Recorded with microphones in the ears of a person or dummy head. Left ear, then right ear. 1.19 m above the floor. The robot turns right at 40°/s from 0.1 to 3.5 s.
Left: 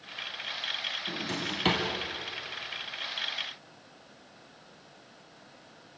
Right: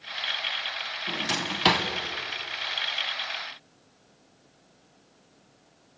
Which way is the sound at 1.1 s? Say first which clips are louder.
Right 5 dB; 55° right (ahead or behind).